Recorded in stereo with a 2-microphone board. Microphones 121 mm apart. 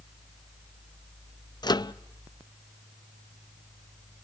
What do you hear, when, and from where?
1.6 s a microwave: 35° left (ahead or behind), 0.5 m